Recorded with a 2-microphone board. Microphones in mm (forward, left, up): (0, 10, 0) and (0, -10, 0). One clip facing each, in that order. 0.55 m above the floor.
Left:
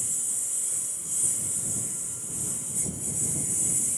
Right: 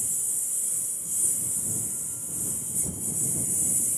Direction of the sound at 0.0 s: 15° left (ahead or behind).